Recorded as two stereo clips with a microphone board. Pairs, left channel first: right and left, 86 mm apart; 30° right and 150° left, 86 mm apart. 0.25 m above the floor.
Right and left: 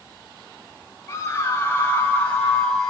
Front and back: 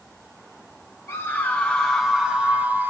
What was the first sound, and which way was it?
A scream, 70° right.